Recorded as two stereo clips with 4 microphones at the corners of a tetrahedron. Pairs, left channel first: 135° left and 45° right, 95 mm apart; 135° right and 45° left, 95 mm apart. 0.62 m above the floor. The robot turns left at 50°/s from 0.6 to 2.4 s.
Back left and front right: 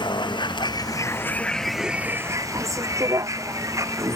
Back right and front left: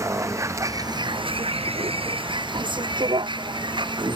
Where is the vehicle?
100° left; by 4.2 s 10° left.